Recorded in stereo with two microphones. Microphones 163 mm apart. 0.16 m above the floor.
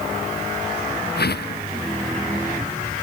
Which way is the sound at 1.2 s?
80° left.